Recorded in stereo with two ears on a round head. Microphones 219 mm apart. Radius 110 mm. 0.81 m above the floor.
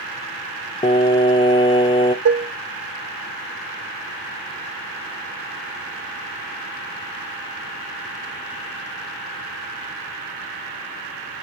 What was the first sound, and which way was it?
Singing, 20° left (ahead or behind).